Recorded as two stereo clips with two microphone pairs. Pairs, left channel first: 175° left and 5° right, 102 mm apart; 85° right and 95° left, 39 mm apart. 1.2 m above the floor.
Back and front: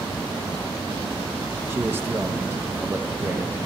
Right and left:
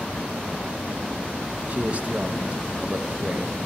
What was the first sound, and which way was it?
A man speaking, 50° left.